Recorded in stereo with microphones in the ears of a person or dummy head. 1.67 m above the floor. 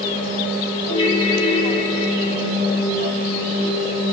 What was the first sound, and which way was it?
A ringtone, 35° left (ahead or behind).